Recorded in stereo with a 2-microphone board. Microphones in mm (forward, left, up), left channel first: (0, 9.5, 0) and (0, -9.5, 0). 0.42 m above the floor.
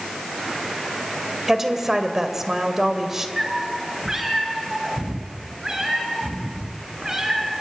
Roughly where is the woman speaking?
Centre.